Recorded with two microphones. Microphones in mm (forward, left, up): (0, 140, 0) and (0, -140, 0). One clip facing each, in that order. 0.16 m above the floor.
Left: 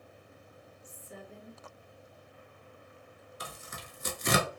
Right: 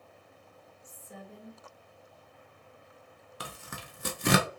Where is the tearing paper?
70° right (ahead or behind), 0.6 m.